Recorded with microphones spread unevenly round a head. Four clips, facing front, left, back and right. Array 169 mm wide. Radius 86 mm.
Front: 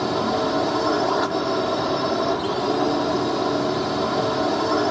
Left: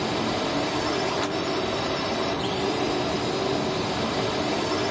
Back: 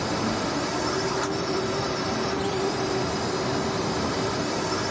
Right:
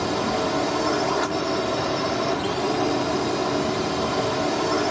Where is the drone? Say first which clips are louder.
Right 3 dB, front 5 dB; 20° right.